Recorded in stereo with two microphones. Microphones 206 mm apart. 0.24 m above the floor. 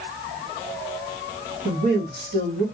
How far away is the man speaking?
About 1.4 m.